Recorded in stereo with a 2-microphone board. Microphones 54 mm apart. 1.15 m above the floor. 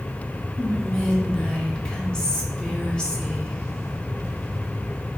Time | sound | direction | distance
0.6 | whispering | 15° left (ahead or behind) | 1.1 m